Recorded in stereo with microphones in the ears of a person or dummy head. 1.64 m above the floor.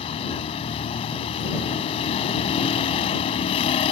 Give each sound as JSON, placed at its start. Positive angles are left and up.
{"t": 0.0, "sound": "a vehicle", "side_deg": 30}